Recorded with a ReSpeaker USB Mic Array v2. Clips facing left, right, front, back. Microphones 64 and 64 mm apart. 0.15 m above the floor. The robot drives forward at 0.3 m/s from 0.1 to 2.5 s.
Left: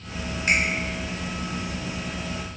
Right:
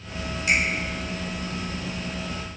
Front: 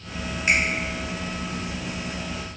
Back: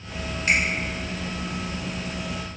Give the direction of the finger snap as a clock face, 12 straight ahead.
10 o'clock.